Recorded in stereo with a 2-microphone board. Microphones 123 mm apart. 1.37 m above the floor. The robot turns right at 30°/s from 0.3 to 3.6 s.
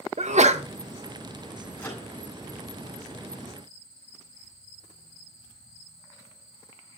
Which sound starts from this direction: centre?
A microwave, at 1.8 s.